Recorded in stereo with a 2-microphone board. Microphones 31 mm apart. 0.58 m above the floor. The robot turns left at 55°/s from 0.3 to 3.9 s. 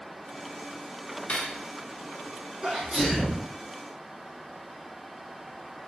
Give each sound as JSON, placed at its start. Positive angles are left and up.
{"t": 1.3, "sound": "cutlery clinking", "side_deg": 50, "distance_m": 0.6}
{"t": 2.6, "sound": "a sneeze", "azimuth_deg": -35, "distance_m": 0.8}